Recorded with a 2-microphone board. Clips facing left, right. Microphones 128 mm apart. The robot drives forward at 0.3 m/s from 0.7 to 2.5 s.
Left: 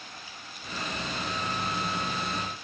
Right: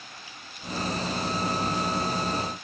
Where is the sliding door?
I don't hear a sliding door.